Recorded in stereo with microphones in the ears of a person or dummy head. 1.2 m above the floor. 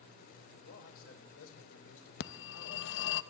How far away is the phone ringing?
About 0.8 m.